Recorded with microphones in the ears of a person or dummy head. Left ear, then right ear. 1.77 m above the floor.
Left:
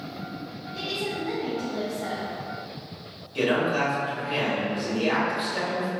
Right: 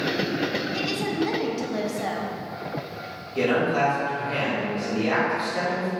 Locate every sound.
0.7 s a woman speaking: 70° right (ahead or behind), 0.7 m
3.4 s a man speaking: 15° left (ahead or behind), 1.9 m